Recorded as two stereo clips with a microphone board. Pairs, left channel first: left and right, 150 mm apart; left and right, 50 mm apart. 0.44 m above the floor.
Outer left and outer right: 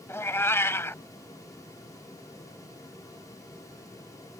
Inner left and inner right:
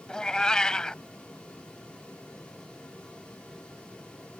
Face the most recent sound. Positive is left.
turn(degrees=15)  # may be behind; listen again after turning